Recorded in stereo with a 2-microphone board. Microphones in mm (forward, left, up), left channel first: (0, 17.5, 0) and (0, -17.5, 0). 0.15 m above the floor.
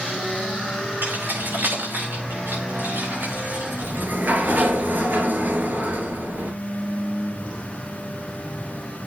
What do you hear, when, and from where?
1.0 s keys jangling: 70° right (ahead or behind), 8.5 m; by 4.8 s 80° right, 6.5 m
3.8 s a sliding door: 60° right (ahead or behind), 3 m